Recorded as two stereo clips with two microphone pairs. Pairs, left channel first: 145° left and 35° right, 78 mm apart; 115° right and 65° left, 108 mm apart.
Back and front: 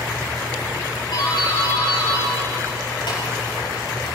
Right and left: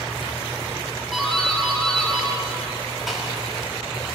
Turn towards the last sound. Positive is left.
turn(degrees=155)